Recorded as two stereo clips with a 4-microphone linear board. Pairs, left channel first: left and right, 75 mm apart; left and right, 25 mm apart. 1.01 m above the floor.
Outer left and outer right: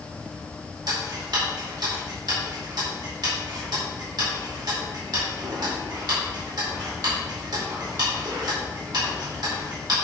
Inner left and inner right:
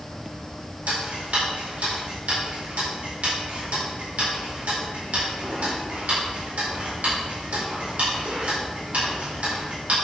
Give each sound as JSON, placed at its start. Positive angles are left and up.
{"t": 0.9, "sound": "ticking", "side_deg": -65, "distance_m": 4.5}